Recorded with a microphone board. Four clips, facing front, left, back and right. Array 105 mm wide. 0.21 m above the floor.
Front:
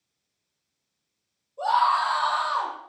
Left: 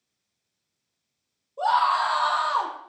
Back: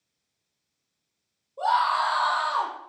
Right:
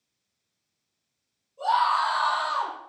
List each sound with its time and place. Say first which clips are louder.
1.6 s a scream: left 1 dB, front 1 dB; 120° left, 7 m; by 2.7 s 115° left, 7 m